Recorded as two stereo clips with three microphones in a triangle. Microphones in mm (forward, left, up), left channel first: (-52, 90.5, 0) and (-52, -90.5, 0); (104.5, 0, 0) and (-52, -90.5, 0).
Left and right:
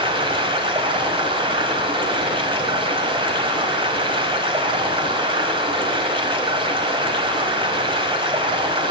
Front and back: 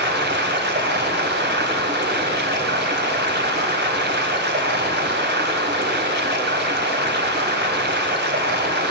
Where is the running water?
150° right, 2.5 m.